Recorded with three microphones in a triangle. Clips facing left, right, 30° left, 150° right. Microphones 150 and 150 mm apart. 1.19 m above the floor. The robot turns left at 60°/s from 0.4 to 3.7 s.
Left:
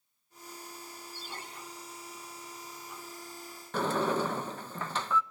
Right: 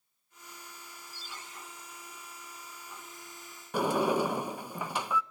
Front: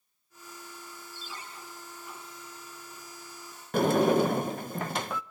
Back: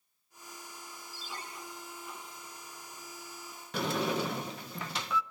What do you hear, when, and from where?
1.1 s a ringtone: 130° left, 9.5 m; by 1.4 s 110° left, 9.5 m
3.7 s a sliding door: 15° right, 0.6 m